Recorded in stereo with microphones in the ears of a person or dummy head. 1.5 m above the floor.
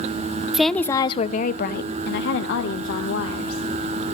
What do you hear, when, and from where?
0.5 s a woman speaking: centre (ahead or behind), 0.6 m; by 3.7 s 85° left, 1.9 m